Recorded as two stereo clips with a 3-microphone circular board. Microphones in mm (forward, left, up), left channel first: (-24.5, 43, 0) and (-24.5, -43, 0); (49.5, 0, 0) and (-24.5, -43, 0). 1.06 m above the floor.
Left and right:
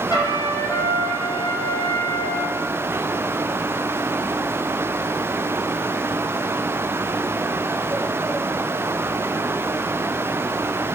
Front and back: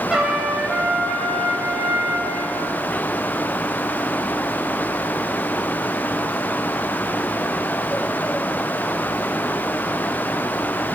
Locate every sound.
0.1 s a trumpet: 130° left, 3.5 m